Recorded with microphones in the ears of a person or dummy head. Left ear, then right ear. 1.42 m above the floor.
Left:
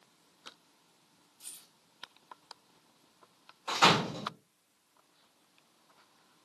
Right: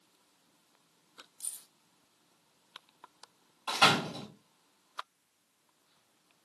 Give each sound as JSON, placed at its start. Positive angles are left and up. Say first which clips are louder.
{"t": 1.4, "sound": "keys jangling", "louder": "right 4 dB", "side_deg": -75, "distance_m": 2.5}
{"t": 3.7, "sound": "a door slam", "louder": "even", "side_deg": -35, "distance_m": 2.0}